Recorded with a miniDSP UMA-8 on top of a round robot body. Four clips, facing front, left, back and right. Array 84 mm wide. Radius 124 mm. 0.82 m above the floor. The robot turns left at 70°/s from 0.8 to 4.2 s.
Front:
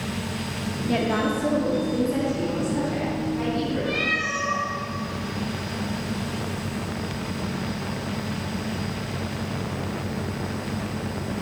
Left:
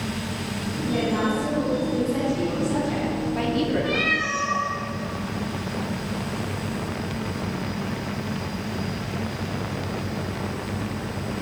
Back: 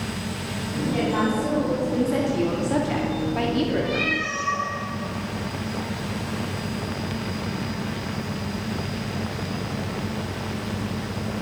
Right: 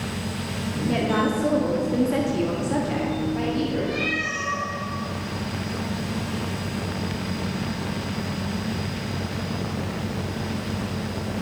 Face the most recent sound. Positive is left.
turn(degrees=75)